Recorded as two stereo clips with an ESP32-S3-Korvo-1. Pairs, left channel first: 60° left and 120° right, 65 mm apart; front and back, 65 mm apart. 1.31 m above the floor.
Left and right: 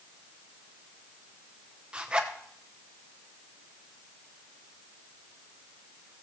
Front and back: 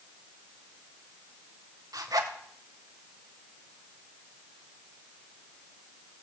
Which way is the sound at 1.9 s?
170° left.